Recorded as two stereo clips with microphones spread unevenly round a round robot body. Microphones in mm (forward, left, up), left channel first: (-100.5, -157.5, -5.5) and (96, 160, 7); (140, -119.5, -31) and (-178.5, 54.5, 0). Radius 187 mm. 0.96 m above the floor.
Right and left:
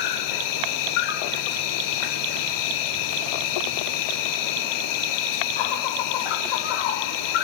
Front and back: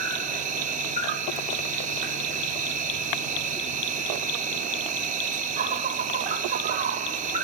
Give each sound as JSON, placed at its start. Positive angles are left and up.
{"t": 0.0, "sound": "an insect", "azimuth_deg": -140, "distance_m": 0.8}